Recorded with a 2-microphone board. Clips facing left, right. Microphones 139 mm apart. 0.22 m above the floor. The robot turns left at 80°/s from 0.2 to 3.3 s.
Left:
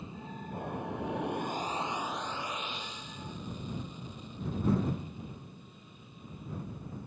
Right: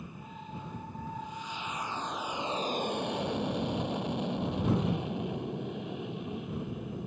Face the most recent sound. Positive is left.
turn(degrees=-95)